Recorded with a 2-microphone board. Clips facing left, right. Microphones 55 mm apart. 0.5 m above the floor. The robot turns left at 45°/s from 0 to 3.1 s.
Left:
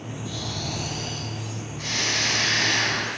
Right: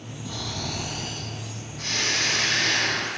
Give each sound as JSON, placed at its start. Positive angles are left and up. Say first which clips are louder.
{"t": 0.2, "sound": "snoring", "louder": "right 1 dB", "azimuth_deg": -125, "distance_m": 4.5}